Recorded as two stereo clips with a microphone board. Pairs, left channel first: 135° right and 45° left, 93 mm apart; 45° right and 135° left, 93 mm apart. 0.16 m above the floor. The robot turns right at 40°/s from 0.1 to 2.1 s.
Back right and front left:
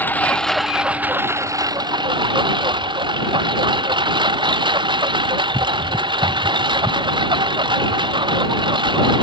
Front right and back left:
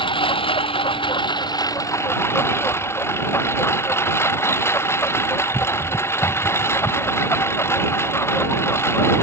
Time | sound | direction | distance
0.0 | a lawn mower | 65° right | ?